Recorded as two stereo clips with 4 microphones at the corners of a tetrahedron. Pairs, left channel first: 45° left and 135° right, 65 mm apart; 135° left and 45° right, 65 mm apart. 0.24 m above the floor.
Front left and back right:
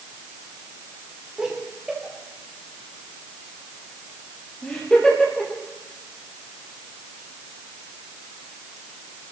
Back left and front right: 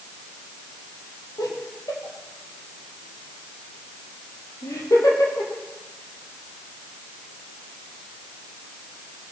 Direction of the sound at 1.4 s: 145° left.